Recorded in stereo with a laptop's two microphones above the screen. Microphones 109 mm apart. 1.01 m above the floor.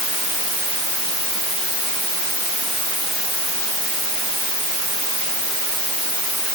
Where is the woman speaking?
No woman speaking in this recording.